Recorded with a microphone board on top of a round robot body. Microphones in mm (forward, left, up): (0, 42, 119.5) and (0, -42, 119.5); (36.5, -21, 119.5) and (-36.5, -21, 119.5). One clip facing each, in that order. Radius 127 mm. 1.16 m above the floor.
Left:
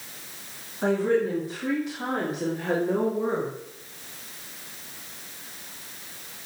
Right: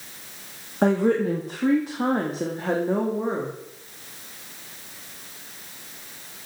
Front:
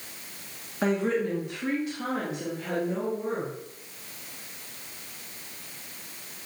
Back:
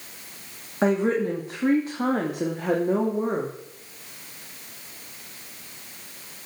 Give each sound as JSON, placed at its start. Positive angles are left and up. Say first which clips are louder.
{"t": 0.8, "sound": "a woman speaking", "louder": "right 3 dB, back 4 dB", "azimuth_deg": -115, "distance_m": 2.5}